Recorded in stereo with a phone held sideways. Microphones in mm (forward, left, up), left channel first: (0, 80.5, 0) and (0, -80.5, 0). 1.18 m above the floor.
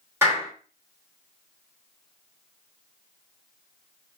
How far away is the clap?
About 2.5 m.